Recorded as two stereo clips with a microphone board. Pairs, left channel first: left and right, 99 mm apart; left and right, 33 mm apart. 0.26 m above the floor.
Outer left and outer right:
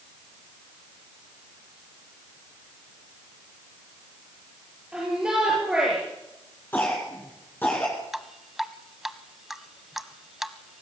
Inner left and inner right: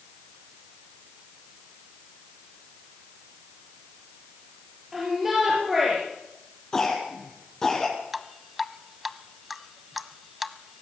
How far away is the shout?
About 7 m.